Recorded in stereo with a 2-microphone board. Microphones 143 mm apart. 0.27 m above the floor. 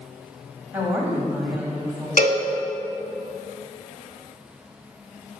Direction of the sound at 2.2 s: 70° left (ahead or behind).